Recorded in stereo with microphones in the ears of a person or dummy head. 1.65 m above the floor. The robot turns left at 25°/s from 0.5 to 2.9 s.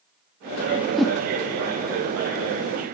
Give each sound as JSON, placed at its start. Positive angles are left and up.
{"t": 0.7, "sound": "a whoosh", "side_deg": -10, "distance_m": 0.9}